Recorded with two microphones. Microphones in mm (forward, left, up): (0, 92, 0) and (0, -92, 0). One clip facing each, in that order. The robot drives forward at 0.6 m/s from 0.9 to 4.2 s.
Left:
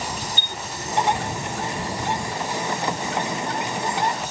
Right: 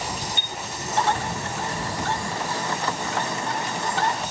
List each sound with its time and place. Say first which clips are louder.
0.4 s a chime: even; 35° left (ahead or behind)